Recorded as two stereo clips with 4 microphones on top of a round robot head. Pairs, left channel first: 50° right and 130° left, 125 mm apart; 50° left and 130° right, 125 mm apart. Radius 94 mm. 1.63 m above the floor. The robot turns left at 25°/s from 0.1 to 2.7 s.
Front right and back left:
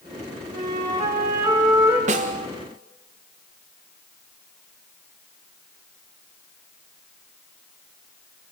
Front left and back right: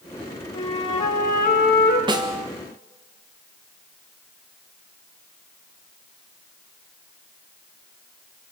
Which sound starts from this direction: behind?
A snare drum, at 2.1 s.